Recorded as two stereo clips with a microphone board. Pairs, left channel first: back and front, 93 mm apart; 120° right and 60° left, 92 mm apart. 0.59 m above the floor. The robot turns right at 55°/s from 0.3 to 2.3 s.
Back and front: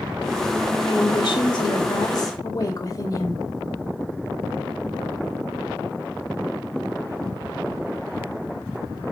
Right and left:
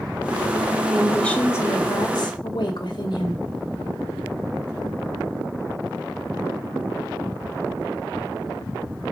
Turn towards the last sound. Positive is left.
turn(degrees=-140)